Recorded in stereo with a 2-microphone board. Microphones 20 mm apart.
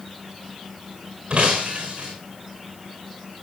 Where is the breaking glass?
65° right (ahead or behind), 4.5 m.